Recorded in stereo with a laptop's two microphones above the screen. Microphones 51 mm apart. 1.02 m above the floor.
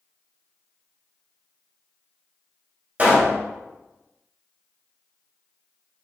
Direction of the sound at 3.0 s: 35° right (ahead or behind).